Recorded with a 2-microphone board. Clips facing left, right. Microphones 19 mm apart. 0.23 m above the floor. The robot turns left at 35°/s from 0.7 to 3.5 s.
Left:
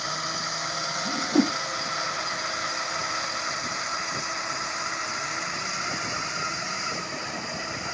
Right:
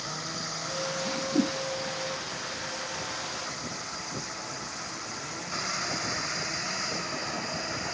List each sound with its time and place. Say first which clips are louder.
0.0 s a drone: left 5 dB; 30° left (ahead or behind); by 8.0 s 60° left (ahead or behind)
1.1 s a whoosh: left 5 dB; 80° left